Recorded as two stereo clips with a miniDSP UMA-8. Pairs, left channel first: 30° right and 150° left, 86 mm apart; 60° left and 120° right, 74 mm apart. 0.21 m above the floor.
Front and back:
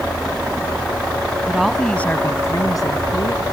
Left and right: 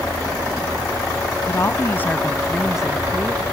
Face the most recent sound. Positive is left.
turn(degrees=-55)